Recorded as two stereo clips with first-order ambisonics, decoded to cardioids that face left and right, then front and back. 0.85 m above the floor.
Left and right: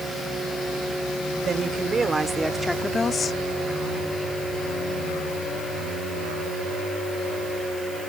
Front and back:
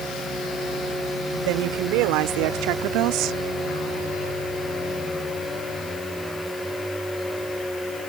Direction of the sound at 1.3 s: 155° right.